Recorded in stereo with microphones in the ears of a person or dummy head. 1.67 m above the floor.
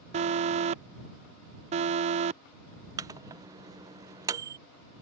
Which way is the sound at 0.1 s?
35° right (ahead or behind).